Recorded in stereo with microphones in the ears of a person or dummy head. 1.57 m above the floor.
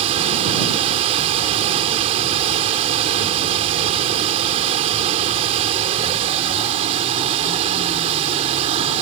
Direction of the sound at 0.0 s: 40° right (ahead or behind).